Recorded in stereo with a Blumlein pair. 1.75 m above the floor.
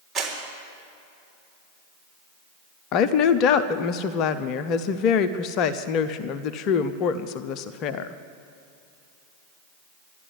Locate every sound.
0.1 s a clap: 25° right, 4 m
2.9 s a woman speaking: 35° left, 0.6 m